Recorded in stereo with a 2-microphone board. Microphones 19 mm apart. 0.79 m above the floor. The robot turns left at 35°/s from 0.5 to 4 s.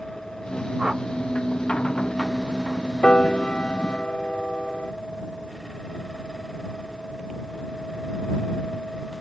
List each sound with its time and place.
0.8 s a whoosh: 30° right (ahead or behind); by 1.0 s 35° right (ahead or behind)
3.0 s a piano: 110° left; by 4.9 s 75° left